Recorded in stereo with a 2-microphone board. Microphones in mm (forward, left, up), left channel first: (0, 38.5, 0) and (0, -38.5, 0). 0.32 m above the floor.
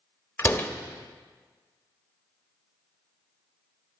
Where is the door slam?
25° left (ahead or behind), 0.6 m.